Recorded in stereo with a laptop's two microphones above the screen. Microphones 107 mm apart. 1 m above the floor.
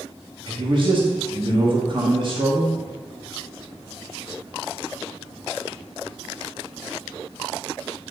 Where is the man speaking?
50° right (ahead or behind), 1.4 m.